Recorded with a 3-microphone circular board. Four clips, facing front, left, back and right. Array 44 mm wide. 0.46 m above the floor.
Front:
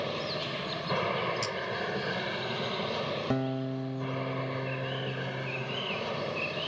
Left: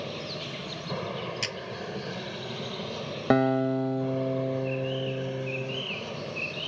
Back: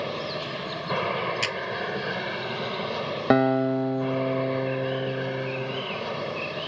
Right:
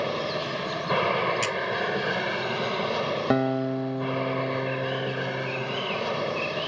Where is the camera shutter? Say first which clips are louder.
Right 7 dB, back 6 dB; 170° right.